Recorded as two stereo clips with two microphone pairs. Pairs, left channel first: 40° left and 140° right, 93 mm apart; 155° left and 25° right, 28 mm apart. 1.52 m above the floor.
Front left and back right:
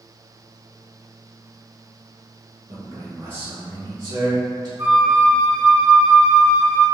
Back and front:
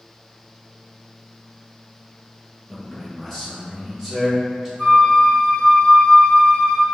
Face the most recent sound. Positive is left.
turn(degrees=-125)